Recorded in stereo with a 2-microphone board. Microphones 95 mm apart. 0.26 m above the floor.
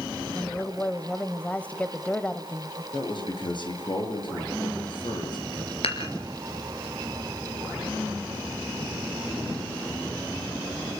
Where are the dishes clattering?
80° left, 4 m.